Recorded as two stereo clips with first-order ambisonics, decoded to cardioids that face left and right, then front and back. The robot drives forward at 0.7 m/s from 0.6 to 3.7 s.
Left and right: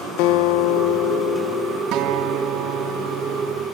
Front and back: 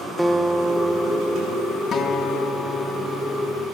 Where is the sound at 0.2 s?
90° left, 1.7 m; by 1.8 s 120° left, 1.9 m.